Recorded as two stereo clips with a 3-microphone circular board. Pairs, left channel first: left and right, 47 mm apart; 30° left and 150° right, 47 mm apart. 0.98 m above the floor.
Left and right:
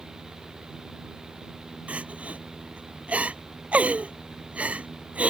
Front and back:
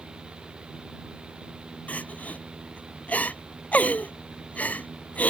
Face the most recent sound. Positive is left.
turn(degrees=-25)